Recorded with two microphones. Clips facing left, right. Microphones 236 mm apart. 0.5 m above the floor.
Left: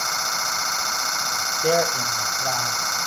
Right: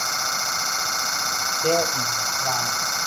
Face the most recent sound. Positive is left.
turn(degrees=20)  # may be behind; listen again after turning